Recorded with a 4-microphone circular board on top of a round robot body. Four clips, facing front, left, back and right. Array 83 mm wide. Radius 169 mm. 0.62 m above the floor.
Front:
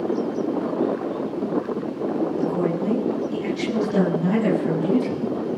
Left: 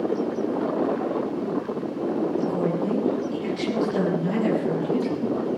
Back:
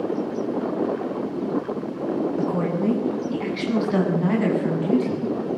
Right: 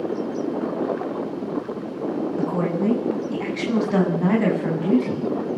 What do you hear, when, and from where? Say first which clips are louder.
2.4 s a woman speaking: right 1 dB, front 1 dB; 130° right, 8.5 m; by 5.6 s 100° right, 6.5 m